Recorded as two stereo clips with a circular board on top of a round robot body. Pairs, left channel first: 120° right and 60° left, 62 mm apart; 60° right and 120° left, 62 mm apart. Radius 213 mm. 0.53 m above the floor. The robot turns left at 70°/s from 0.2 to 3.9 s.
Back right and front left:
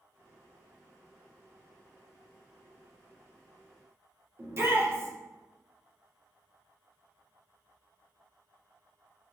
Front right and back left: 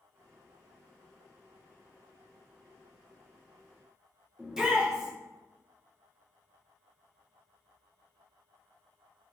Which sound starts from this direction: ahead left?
A shout, at 4.4 s.